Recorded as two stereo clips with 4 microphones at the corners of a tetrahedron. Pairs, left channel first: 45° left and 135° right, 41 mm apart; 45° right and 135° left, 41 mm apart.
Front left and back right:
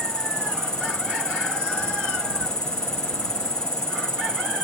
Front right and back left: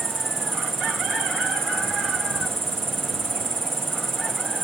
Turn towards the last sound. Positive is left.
turn(degrees=120)